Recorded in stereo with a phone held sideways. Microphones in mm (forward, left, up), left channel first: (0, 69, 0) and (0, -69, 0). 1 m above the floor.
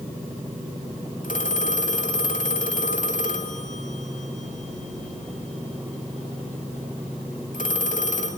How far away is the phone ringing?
About 2 m.